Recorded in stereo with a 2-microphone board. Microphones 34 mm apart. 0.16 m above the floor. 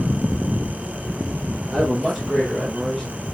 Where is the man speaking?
Centre (ahead or behind), 3.5 m.